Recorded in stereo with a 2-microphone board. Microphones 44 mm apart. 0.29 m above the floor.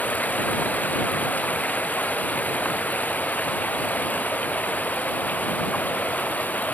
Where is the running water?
35° left (ahead or behind).